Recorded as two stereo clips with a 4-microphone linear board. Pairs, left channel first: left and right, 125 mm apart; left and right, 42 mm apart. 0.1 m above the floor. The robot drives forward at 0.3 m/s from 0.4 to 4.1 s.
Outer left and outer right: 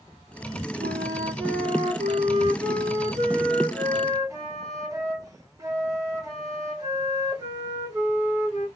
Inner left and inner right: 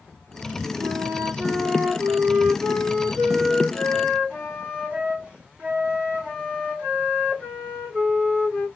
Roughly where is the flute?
Right.